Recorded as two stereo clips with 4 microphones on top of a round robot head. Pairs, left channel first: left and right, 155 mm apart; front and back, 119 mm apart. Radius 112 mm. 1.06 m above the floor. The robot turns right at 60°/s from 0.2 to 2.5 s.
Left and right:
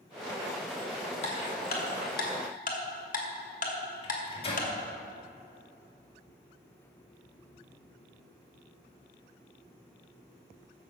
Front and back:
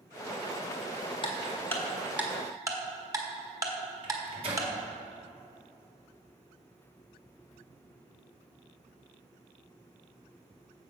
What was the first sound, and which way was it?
Ticking, 40° left.